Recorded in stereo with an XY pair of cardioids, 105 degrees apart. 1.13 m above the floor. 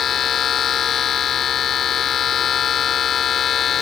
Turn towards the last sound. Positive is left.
turn(degrees=55)